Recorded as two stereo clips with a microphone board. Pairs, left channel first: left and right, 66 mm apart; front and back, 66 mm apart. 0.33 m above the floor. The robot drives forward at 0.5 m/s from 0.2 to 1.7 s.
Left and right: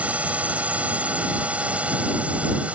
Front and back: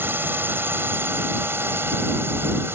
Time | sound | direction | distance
0.0 | a drone | 145° right | ?